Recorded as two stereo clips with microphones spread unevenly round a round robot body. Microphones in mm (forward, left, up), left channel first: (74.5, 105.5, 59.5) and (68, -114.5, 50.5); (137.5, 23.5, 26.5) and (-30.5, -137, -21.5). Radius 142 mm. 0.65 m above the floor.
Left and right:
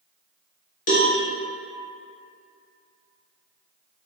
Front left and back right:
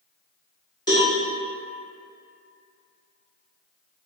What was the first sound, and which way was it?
A cowbell, 125° left.